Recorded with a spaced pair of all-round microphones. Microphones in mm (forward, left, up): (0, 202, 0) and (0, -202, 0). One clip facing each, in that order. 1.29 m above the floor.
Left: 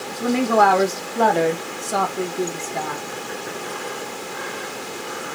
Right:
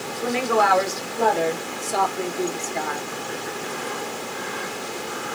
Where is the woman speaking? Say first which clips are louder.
Left 4 dB; 50° left (ahead or behind), 1.9 m; by 3.0 s 40° left (ahead or behind), 1.7 m.